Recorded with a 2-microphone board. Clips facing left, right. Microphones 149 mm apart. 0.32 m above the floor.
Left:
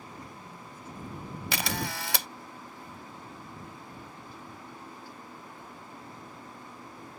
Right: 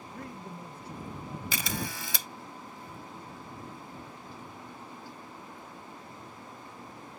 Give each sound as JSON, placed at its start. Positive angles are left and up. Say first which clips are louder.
{"t": 0.1, "sound": "a man speaking", "louder": "right 4 dB", "side_deg": -70}
{"t": 1.5, "sound": "a camera shutter", "louder": "left 4 dB", "side_deg": 70}